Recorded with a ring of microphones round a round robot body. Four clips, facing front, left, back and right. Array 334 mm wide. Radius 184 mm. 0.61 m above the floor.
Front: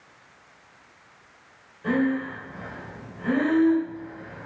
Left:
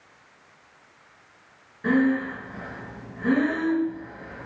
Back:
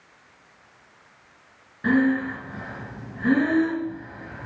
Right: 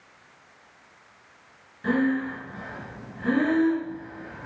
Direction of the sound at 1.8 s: 165° left.